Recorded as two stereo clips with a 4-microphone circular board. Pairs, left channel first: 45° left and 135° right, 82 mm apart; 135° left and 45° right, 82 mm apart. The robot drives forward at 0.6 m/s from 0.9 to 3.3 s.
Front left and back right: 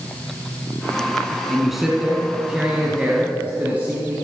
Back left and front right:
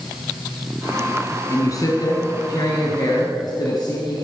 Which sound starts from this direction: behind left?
A man speaking, at 1.5 s.